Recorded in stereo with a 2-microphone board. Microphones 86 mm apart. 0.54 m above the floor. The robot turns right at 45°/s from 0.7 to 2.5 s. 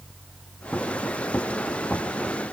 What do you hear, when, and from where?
Only background noise.